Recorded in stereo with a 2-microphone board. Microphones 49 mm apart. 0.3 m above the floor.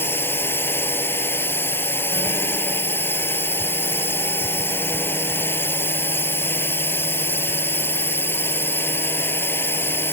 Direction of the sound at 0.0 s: 50° left (ahead or behind).